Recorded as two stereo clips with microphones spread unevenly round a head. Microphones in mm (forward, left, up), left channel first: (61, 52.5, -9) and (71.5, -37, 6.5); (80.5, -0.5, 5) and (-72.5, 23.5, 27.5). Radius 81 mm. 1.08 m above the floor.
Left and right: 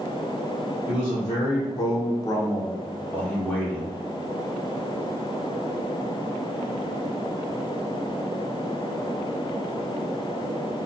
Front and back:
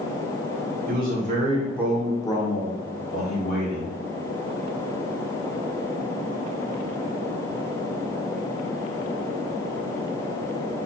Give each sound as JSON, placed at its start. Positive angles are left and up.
{"t": 0.9, "sound": "a man speaking", "azimuth_deg": 155, "distance_m": 0.9}